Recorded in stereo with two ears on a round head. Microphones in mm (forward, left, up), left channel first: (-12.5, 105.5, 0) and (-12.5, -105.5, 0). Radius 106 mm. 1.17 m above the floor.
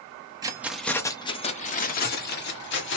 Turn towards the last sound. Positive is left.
turn(degrees=50)  # may be behind; listen again after turning